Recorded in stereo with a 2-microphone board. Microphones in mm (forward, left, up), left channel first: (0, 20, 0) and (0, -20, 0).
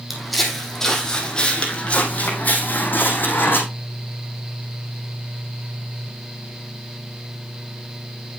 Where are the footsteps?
Centre (ahead or behind), 2.5 m; by 3.6 s 60° left (ahead or behind), 3 m.